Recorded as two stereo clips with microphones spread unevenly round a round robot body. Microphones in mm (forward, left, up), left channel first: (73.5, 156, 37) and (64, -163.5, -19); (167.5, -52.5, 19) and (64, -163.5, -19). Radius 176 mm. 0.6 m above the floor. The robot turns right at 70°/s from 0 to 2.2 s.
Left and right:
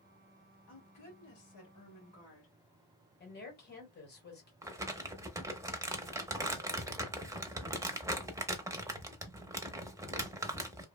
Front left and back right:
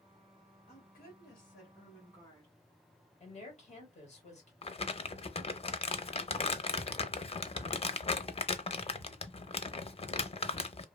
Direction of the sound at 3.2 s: 45° left.